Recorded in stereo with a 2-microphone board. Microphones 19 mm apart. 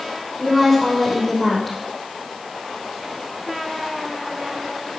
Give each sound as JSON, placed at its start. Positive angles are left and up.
{"t": 0.4, "sound": "a woman speaking", "side_deg": 15, "distance_m": 4.5}